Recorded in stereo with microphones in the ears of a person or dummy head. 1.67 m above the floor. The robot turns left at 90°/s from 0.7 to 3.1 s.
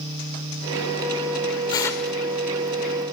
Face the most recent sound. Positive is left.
turn(degrees=-90)